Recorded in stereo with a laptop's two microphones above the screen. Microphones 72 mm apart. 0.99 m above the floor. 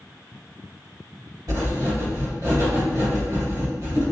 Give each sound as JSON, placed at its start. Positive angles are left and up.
{"t": 1.5, "sound": "writing", "side_deg": -60, "distance_m": 1.7}